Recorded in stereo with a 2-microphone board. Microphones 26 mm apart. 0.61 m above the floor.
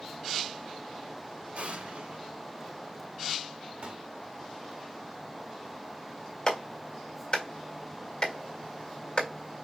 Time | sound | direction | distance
1.6 | an explosion | 80° right | 2.5 m
3.8 | a pop | 65° right (ahead or behind) | 1.6 m
6.5 | a clap | 35° left (ahead or behind) | 2 m